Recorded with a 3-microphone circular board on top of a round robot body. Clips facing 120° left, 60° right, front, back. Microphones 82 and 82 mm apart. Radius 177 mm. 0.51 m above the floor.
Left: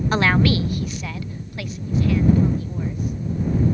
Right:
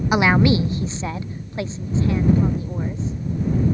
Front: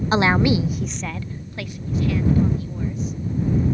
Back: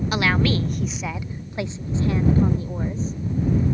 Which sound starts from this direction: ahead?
A woman speaking, at 0.1 s.